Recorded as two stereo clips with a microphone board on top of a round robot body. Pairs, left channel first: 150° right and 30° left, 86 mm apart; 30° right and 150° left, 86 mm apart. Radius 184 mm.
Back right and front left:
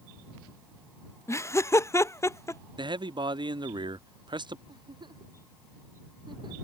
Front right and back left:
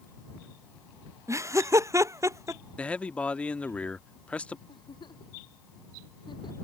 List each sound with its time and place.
1.3 s laughter: 175° left
2.8 s a man speaking: 45° left
4.7 s a giggle: straight ahead